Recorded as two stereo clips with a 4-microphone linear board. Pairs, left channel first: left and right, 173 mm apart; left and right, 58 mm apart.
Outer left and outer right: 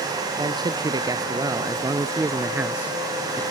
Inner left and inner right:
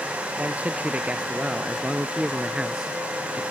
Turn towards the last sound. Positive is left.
turn(degrees=0)  # may be behind; listen again after turning